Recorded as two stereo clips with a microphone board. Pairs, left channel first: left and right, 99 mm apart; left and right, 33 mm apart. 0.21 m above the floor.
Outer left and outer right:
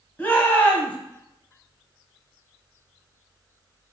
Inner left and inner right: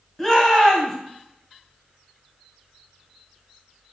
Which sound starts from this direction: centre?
A shout, at 0.2 s.